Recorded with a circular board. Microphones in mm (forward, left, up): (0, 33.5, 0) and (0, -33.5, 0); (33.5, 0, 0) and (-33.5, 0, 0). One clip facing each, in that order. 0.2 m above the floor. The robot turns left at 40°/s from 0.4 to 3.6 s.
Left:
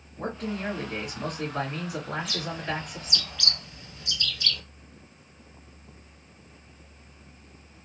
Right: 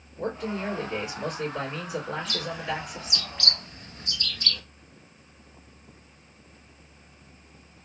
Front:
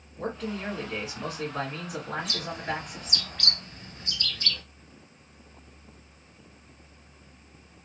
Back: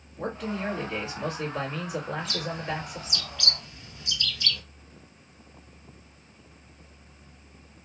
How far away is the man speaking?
About 2.5 m.